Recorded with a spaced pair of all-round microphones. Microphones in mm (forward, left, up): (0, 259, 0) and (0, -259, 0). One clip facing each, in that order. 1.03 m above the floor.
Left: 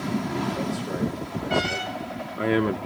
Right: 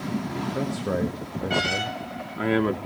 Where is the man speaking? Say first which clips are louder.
Right 1 dB; 70° right (ahead or behind), 1.6 m; by 2.8 s 5° left (ahead or behind), 0.9 m.